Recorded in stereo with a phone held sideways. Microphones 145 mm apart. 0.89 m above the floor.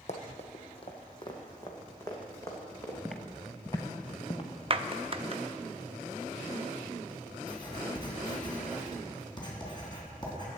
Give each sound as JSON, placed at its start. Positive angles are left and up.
{"t": 0.1, "sound": "running footsteps", "side_deg": 55, "distance_m": 1.6}
{"t": 3.0, "sound": "footsteps", "side_deg": 0, "distance_m": 1.1}
{"t": 4.7, "sound": "a clap", "side_deg": -40, "distance_m": 0.6}
{"t": 7.5, "sound": "writing", "side_deg": 30, "distance_m": 3.5}